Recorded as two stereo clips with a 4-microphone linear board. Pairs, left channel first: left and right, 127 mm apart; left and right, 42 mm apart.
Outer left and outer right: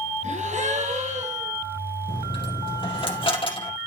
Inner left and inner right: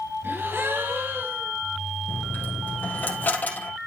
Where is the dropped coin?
40° left (ahead or behind), 3.5 m.